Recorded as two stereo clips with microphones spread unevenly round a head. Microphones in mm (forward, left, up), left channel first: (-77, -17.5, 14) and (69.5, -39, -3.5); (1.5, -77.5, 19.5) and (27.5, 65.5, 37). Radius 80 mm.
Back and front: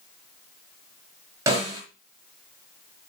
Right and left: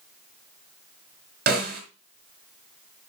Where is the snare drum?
65° left, 5 m.